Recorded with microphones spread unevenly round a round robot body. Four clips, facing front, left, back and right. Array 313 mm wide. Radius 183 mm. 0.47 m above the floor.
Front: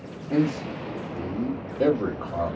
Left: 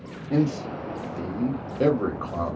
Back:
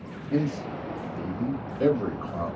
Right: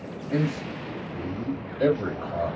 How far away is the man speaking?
About 1.9 m.